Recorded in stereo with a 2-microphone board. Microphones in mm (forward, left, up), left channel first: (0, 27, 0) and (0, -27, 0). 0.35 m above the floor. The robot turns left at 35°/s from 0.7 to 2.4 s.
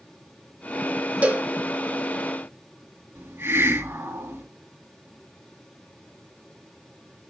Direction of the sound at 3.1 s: 50° right (ahead or behind).